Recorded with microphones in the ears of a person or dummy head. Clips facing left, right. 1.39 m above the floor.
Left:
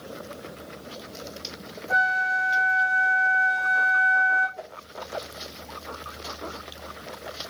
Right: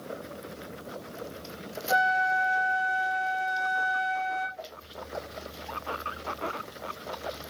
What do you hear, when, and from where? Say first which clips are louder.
1.9 s a flute: right 3 dB; 70° right (ahead or behind), 3.5 m
4.6 s a whoosh: left 2 dB; 60° left (ahead or behind), 1.7 m